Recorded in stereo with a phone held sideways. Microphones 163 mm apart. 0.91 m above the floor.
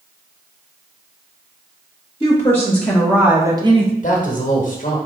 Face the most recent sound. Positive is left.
turn(degrees=55)  # may be behind; listen again after turning